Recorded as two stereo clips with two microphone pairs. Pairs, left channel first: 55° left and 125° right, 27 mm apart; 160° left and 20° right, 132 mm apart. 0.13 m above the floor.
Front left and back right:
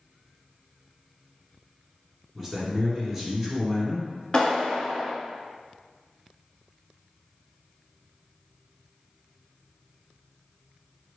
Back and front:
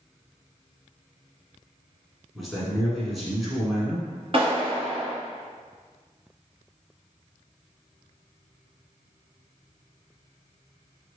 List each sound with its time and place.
2.4 s a man speaking: 105° right, 1.1 m
4.3 s a clap: 5° left, 1.6 m